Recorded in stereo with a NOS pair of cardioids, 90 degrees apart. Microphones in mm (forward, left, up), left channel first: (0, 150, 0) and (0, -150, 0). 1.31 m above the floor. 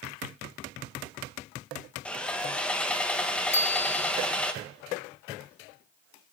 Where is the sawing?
5° left, 1.7 m.